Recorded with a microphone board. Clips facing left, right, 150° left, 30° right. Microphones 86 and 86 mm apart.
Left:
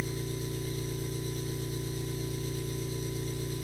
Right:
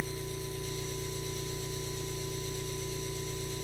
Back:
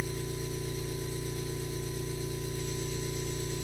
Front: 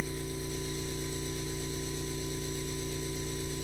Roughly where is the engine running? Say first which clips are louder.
Left 2 dB, back 1 dB; left.